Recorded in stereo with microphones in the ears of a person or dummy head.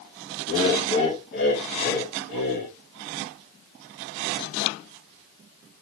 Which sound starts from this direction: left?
Laughter, at 0.5 s.